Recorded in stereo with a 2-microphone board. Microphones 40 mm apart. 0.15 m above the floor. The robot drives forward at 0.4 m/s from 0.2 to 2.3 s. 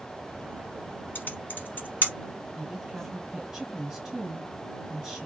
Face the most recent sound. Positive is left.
turn(degrees=-15)  # may be behind; listen again after turning